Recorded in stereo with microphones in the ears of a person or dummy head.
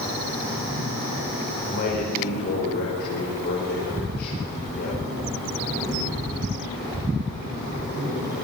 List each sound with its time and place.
1.7 s a man speaking: 55° left (ahead or behind), 5 m